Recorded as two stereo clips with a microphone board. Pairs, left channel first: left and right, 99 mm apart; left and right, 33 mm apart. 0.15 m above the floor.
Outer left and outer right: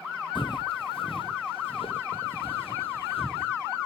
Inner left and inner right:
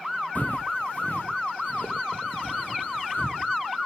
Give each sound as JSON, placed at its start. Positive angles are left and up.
{"t": 0.3, "sound": "footsteps", "side_deg": 55, "distance_m": 0.9}